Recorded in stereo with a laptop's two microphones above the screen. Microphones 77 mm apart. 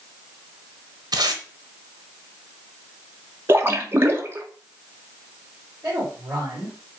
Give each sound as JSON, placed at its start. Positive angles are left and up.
{"t": 1.1, "sound": "tape being pulled", "side_deg": -55, "distance_m": 1.1}
{"t": 3.5, "sound": "a splash", "side_deg": -30, "distance_m": 0.8}
{"t": 5.8, "sound": "a woman speaking", "side_deg": -20, "distance_m": 3.0}